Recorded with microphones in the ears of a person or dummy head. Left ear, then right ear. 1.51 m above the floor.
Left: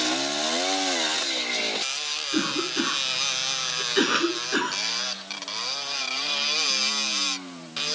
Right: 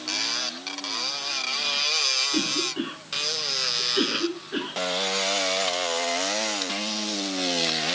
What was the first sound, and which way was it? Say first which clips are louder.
A cough: even; 55° left (ahead or behind).